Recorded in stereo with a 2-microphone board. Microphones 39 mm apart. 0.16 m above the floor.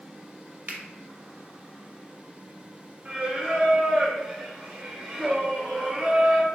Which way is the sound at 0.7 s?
25° right (ahead or behind).